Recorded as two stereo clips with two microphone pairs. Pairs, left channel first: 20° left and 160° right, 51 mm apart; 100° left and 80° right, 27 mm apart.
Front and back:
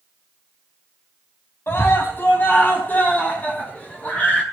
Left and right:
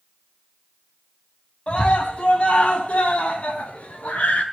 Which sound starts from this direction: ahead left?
A scream, at 1.7 s.